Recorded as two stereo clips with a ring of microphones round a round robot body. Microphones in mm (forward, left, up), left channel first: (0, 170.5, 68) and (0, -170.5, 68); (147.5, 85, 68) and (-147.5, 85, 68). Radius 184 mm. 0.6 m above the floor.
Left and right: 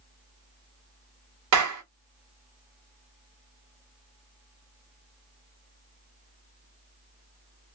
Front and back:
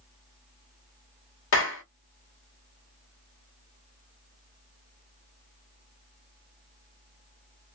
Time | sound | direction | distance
1.5 | a clap | 50° right | 1.4 m